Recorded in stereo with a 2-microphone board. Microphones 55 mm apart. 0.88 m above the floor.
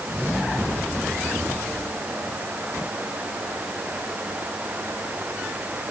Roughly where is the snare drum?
I don't hear a snare drum.